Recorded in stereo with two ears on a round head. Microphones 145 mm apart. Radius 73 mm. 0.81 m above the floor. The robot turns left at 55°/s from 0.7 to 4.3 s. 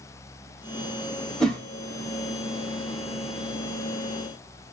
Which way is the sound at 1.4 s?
Centre (ahead or behind).